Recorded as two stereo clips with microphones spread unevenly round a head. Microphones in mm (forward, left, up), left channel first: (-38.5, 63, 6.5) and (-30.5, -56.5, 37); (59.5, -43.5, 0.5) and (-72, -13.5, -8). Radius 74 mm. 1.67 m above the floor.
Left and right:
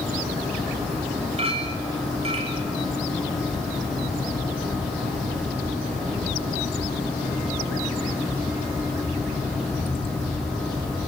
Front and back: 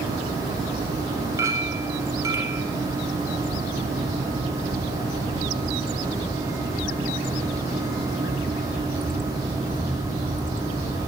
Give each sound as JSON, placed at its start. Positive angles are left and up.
{"t": 1.4, "sound": "a clink", "azimuth_deg": -125, "distance_m": 8.0}